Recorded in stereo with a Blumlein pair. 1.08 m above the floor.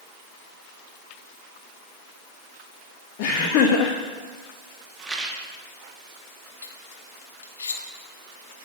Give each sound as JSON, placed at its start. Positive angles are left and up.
{"t": 3.2, "sound": "laughter", "azimuth_deg": 45, "distance_m": 1.0}
{"t": 5.0, "sound": "a rattle", "azimuth_deg": -15, "distance_m": 1.5}
{"t": 6.6, "sound": "cutlery clinking", "azimuth_deg": 70, "distance_m": 1.3}